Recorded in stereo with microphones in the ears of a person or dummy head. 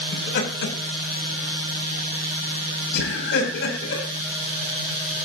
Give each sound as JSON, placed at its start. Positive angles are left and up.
{"t": 0.1, "sound": "laughter", "side_deg": 70, "distance_m": 9.0}